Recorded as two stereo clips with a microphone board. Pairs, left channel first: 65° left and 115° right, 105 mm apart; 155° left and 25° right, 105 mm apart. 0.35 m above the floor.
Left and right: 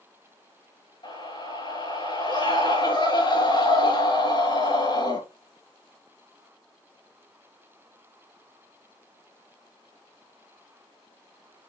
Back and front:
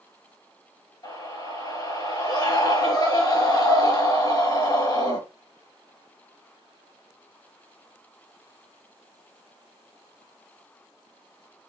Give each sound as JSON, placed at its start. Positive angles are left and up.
{"t": 1.0, "sound": "a scream", "azimuth_deg": 105, "distance_m": 5.0}